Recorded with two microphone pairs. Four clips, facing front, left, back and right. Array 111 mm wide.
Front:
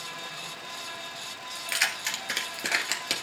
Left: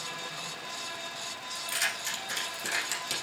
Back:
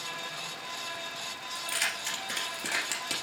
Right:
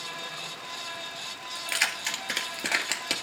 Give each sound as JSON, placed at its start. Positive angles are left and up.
{"t": 1.6, "sound": "keys jangling", "azimuth_deg": -55, "distance_m": 2.0}